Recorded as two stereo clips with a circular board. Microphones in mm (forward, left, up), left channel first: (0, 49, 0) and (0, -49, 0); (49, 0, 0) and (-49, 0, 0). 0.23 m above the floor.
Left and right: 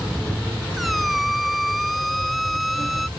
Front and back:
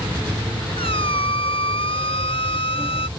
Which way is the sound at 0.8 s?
Straight ahead.